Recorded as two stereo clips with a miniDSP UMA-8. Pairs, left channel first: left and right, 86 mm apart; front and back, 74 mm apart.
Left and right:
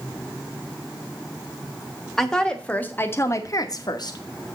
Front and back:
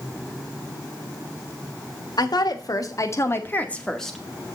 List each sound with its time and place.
2.2 s a woman speaking: 5° left, 1.3 m; by 4.2 s 90° left, 1.1 m